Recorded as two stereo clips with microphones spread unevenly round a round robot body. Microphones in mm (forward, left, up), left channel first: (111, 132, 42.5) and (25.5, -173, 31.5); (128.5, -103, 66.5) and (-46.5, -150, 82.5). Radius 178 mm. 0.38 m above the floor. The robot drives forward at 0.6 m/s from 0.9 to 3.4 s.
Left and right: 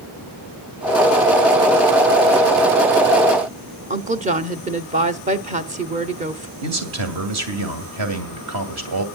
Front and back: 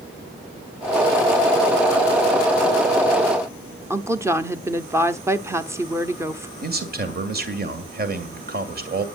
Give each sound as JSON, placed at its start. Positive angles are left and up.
{"t": 3.9, "sound": "a woman speaking", "azimuth_deg": -95, "distance_m": 0.9}
{"t": 6.6, "sound": "a man speaking", "azimuth_deg": -135, "distance_m": 2.5}